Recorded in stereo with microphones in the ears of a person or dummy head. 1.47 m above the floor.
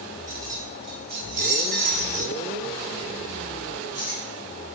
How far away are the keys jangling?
About 1.4 m.